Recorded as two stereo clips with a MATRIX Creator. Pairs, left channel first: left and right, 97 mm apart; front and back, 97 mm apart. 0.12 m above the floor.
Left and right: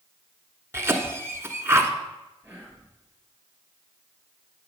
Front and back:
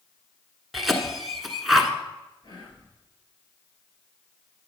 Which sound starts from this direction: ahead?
Whispering, at 2.4 s.